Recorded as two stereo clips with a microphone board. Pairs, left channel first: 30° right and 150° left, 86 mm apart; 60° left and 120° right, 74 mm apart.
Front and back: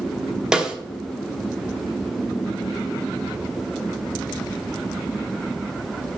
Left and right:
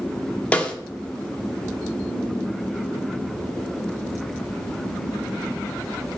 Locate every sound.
0.5 s a snare drum: 85° left, 0.9 m